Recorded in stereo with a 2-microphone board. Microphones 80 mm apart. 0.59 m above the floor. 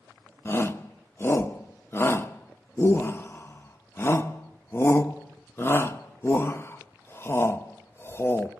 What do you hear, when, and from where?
0.5 s a shout: 30° left (ahead or behind), 0.9 m